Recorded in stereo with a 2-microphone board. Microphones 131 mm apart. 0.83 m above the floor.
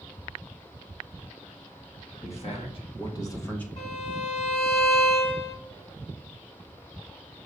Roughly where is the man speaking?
Left.